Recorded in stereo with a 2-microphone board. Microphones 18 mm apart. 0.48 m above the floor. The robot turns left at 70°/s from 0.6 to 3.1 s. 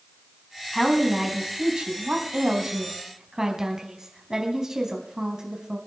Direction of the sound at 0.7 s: 20° left.